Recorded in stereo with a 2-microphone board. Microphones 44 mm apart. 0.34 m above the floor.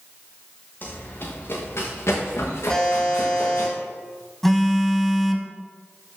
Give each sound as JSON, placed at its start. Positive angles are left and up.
{"t": 0.8, "sound": "running footsteps", "side_deg": 45, "distance_m": 3.0}
{"t": 2.7, "sound": "a buzzer", "side_deg": 10, "distance_m": 3.0}
{"t": 4.4, "sound": "a phone buzzing", "side_deg": 5, "distance_m": 1.0}